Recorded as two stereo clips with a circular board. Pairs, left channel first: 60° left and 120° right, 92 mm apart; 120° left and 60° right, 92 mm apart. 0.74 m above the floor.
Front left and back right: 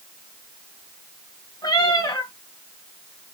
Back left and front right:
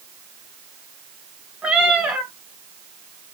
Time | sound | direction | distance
1.6 | a cat meowing | 20° left | 1.8 m